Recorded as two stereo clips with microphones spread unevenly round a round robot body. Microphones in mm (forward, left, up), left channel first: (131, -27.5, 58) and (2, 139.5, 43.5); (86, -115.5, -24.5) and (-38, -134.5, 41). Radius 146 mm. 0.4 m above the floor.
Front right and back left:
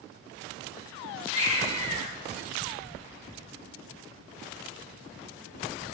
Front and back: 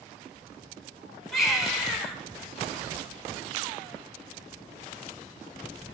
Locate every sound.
1.3 s a baby crying: 75° right, 2.5 m